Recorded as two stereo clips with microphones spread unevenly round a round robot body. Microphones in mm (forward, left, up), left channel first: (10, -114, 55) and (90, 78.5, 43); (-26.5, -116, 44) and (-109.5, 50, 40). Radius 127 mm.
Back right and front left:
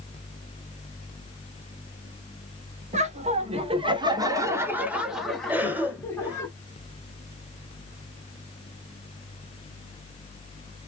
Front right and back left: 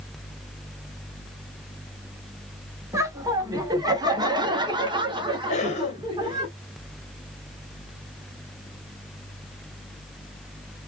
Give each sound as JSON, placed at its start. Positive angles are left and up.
{"t": 2.9, "sound": "laughter", "azimuth_deg": 50, "distance_m": 1.5}
{"t": 5.5, "sound": "a cough", "azimuth_deg": -10, "distance_m": 1.4}